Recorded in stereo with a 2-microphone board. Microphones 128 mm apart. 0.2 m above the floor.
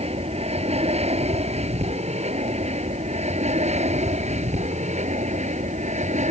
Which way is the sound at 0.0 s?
55° right (ahead or behind).